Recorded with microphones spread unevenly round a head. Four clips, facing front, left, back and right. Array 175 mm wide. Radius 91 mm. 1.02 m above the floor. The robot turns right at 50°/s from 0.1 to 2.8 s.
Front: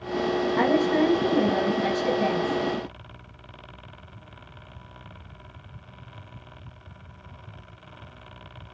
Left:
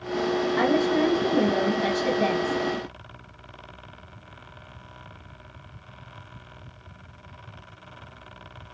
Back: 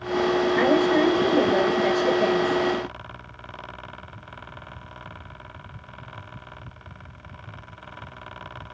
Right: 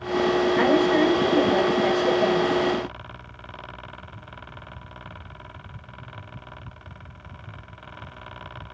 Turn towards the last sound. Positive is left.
turn(degrees=110)